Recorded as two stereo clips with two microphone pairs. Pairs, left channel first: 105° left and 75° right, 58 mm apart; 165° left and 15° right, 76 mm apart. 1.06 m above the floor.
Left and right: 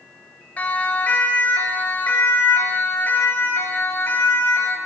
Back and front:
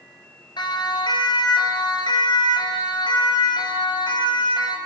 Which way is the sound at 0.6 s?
175° left.